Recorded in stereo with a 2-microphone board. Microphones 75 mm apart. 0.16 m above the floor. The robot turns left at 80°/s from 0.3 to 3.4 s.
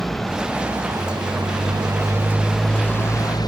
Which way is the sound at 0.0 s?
5° left.